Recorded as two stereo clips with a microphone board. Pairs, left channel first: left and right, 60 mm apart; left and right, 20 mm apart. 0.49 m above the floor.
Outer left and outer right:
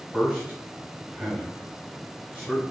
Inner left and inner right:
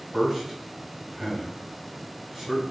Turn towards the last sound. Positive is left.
turn(degrees=-5)  # may be behind; listen again after turning